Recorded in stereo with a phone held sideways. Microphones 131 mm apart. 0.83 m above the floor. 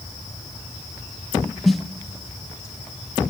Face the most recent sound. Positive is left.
turn(degrees=0)  # may be behind; listen again after turning